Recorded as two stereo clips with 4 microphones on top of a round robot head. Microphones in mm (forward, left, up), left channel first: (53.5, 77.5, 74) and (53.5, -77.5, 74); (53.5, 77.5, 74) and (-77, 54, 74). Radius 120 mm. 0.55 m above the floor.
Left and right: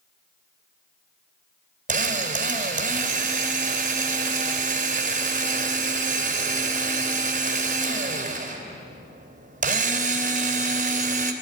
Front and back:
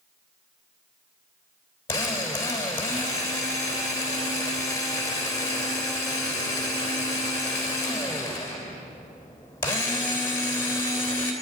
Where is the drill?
65° right, 3 m.